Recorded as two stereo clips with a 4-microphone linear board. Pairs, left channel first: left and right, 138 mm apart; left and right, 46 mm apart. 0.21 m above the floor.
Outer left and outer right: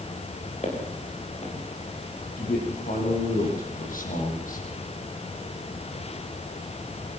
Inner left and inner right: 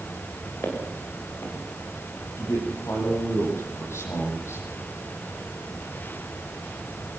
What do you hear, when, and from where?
0.6 s footsteps: 55° left (ahead or behind), 8 m
2.4 s a man speaking: 80° left, 9 m